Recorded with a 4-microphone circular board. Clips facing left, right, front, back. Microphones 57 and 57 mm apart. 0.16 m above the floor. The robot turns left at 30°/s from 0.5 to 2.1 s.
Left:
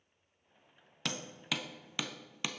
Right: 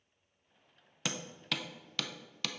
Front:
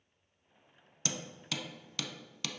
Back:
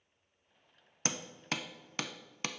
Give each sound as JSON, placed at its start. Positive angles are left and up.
{"t": 1.1, "sound": "hammering", "azimuth_deg": -175, "distance_m": 0.5}